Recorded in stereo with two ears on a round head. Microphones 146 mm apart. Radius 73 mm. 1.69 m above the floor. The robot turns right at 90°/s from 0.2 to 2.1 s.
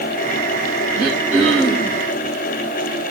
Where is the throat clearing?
40° right, 4.5 m; by 2.0 s 50° left, 4.5 m.